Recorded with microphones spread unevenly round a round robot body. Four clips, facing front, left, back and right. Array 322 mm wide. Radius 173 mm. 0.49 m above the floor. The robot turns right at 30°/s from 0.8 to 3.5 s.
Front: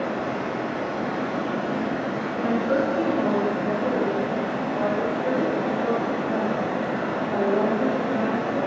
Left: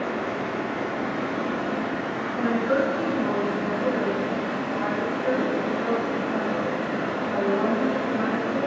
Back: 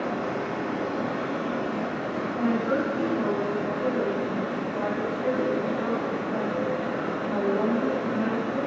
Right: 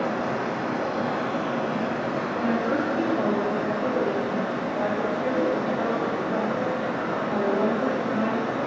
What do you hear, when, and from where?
0.0 s running water: 75° right, 0.7 m; by 8.7 s 5° left, 0.7 m
2.3 s a woman speaking: 65° right, 1.3 m; by 8.6 s 30° right, 1.3 m